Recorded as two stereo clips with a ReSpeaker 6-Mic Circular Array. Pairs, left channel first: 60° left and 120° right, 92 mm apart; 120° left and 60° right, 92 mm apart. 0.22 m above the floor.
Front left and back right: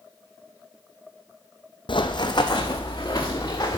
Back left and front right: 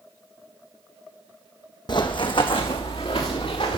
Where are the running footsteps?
85° left, 0.6 m; by 3.8 s 110° left, 1.7 m.